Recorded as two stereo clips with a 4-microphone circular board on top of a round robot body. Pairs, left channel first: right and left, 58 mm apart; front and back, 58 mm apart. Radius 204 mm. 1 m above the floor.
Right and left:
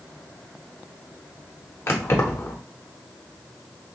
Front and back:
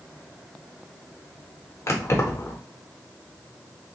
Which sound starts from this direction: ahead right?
Keys jangling, at 1.9 s.